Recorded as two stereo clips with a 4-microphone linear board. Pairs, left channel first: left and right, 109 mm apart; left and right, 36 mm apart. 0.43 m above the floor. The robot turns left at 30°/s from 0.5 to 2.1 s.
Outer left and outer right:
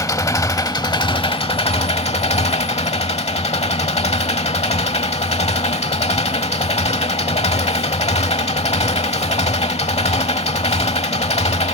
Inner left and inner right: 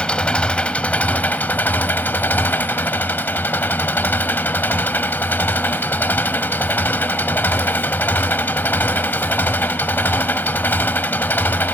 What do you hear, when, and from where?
0.0 s an engine running: 145° left, 0.9 m; by 11.7 s 100° left, 0.9 m